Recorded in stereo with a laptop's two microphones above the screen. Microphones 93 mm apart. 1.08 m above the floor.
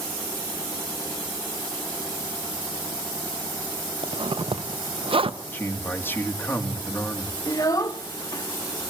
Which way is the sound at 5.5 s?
25° left (ahead or behind).